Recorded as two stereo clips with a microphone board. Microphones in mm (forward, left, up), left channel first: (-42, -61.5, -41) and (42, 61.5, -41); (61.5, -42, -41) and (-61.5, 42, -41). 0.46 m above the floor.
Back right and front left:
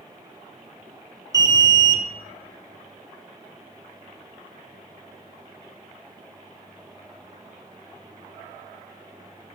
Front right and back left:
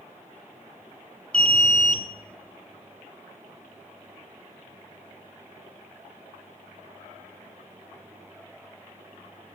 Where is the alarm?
40° left, 1.1 m.